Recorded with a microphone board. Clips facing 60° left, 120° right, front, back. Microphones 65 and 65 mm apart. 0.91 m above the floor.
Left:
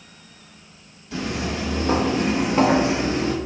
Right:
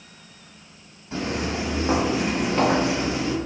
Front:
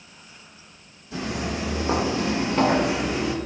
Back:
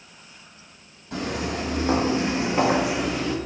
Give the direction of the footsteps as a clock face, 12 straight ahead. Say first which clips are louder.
Even, back 1 dB; 6 o'clock.